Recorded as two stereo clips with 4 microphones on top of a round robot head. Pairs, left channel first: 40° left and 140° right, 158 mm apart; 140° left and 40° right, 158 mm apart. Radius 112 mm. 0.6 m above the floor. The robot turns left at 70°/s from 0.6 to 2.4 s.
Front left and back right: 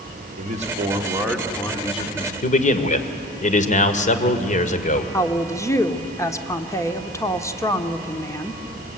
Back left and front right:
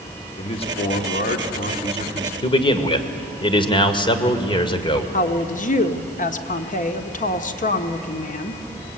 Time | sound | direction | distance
0.4 | a man speaking | 175° right | 2 m
2.4 | a man speaking | 80° left | 1.9 m
5.1 | a woman speaking | 110° left | 1.5 m